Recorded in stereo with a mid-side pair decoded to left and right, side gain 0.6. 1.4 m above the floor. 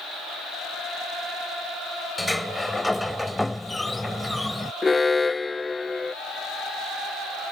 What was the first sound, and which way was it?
A sliding door, 5° left.